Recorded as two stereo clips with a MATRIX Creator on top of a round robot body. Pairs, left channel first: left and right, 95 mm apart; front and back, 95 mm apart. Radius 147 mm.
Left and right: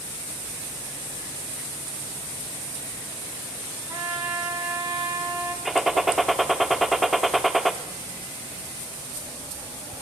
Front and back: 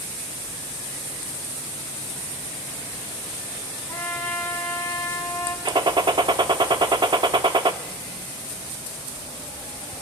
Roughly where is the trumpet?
Ahead right.